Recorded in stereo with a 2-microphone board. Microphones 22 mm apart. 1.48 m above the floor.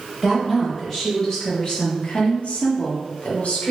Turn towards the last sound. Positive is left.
turn(degrees=65)  # may be behind; listen again after turning